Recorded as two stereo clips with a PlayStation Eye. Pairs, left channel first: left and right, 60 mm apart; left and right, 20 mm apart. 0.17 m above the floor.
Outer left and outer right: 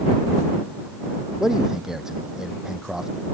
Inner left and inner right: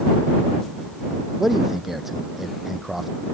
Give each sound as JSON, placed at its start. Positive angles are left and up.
{"t": 1.4, "sound": "a man speaking", "side_deg": -5}